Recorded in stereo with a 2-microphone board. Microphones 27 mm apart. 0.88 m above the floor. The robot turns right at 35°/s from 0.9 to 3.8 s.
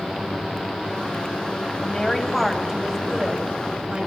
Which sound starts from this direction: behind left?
A woman speaking, at 1.8 s.